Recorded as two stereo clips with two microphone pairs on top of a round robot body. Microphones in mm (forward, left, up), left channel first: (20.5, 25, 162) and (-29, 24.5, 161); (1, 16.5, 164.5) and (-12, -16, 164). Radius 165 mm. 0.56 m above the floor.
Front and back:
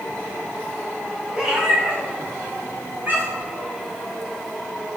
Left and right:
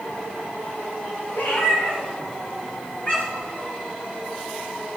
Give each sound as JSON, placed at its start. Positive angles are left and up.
{"t": 1.3, "sound": "a cat meowing", "azimuth_deg": 100, "distance_m": 3.0}